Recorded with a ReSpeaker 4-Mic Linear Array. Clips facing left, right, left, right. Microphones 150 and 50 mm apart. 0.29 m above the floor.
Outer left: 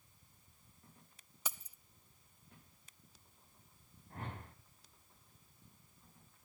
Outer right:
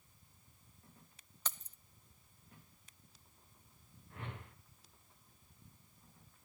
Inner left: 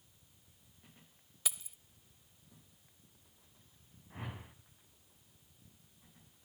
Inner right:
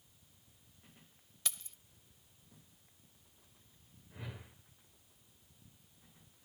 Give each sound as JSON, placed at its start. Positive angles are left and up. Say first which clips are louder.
{"t": 1.4, "sound": "keys jangling", "louder": "outer left 1 dB, inner left 1 dB", "side_deg": 10, "distance_m": 0.6}
{"t": 4.1, "sound": "a whoosh", "louder": "outer left 2 dB, inner left 3 dB", "side_deg": 40, "distance_m": 2.5}